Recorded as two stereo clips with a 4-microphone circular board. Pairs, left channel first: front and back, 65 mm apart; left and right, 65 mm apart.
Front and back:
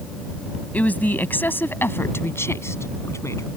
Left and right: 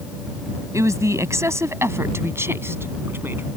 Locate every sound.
0.7 s a woman speaking: 65° right; by 3.5 s 35° right